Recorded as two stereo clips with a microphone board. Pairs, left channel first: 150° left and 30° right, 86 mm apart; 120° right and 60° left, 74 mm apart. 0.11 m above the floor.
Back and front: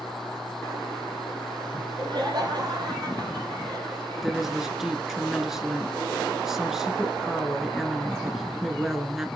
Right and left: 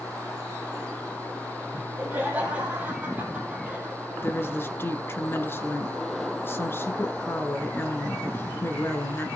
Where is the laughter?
10° right, 3.5 m.